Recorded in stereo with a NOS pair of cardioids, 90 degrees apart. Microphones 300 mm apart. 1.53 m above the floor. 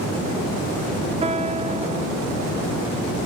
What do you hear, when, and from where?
1.2 s a piano: 20° right, 0.9 m